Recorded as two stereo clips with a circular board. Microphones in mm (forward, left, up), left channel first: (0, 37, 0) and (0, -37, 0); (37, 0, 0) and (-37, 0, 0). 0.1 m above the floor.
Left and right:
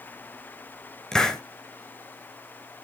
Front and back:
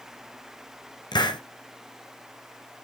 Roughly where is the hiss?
Ahead.